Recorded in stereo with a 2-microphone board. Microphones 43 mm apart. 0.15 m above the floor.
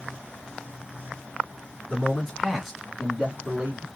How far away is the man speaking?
About 1.7 m.